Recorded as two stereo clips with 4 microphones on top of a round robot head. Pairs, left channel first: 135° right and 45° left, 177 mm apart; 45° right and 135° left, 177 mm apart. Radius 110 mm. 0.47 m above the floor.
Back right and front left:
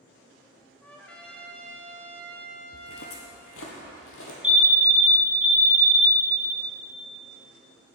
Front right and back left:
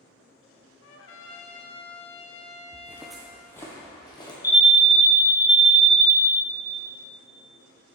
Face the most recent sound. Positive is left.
turn(degrees=-25)